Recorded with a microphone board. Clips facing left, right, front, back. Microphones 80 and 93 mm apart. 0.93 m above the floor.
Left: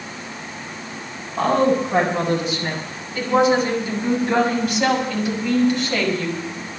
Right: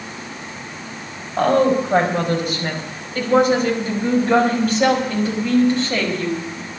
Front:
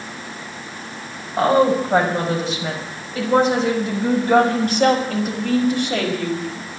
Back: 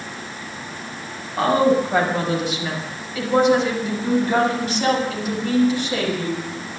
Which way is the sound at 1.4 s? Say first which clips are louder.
Right 2 dB, front 1 dB; 60° right.